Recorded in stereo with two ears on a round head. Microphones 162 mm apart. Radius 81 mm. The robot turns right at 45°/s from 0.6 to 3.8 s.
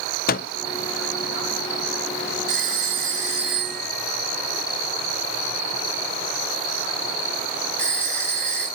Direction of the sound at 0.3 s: 55° left (ahead or behind).